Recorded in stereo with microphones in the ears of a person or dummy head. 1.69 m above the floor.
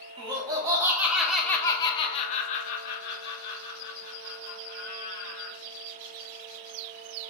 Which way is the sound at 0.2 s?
35° right (ahead or behind).